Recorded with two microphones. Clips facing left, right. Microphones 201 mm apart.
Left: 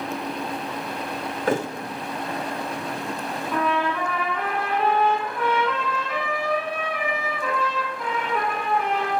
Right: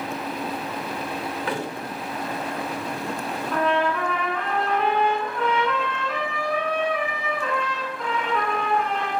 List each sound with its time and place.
1.5 s a thud: 45° left (ahead or behind), 0.6 m
3.5 s a trumpet: 5° left (ahead or behind), 2.5 m